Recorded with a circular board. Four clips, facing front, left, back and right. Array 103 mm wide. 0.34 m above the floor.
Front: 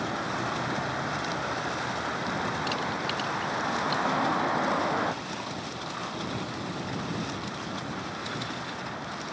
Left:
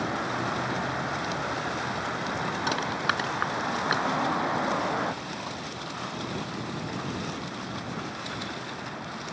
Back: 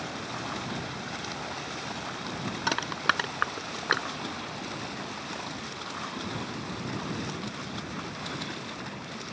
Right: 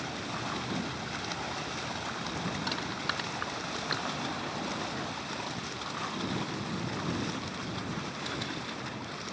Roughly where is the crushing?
Behind left.